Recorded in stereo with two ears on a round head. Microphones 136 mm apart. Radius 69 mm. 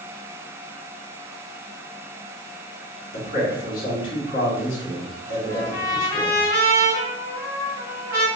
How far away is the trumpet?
About 1.5 m.